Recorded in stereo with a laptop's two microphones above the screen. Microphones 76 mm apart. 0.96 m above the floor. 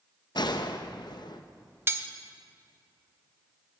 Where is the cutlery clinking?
30° right (ahead or behind), 0.7 m.